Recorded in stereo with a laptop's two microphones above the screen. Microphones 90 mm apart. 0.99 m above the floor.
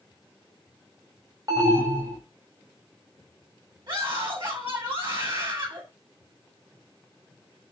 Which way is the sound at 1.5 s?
45° right (ahead or behind).